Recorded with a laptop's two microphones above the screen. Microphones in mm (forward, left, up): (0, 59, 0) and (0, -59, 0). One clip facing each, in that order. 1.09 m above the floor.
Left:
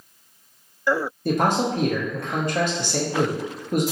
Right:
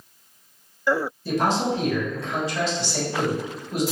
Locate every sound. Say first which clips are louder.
1.2 s a man speaking: left 2 dB; 55° left (ahead or behind), 0.6 m